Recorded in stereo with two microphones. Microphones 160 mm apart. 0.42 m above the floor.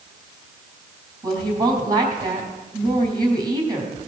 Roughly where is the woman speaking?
Right.